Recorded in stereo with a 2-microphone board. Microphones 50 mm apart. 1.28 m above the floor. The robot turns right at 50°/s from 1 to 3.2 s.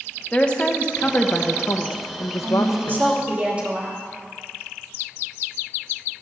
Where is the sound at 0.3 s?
20° left, 1.2 m; by 3.1 s 125° left, 1.2 m.